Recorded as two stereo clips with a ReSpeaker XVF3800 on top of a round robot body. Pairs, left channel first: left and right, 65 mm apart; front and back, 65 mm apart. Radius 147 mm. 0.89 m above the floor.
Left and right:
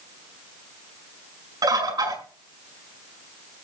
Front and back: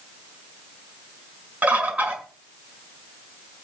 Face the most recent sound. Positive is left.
turn(degrees=-110)